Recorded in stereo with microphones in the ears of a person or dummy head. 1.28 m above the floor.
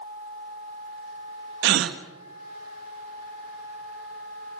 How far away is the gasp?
About 1.5 m.